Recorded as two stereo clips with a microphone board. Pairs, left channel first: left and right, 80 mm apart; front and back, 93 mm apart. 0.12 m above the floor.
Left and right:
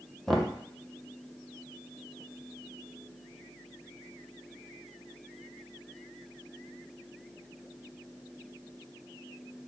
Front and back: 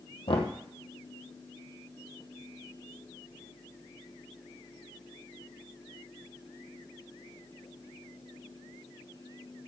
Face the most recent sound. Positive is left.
turn(degrees=5)